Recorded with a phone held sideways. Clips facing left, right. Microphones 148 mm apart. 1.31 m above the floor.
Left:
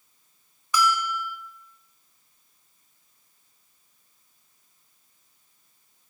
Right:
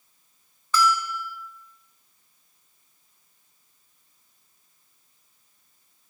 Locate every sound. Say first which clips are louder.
0.7 s a bell: right 1 dB; 15° left (ahead or behind), 0.6 m